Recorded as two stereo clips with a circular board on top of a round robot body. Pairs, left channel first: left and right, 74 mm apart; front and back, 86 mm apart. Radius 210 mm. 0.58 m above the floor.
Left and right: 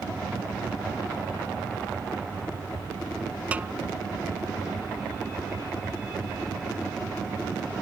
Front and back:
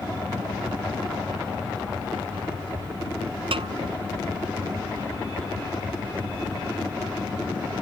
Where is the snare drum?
165° right.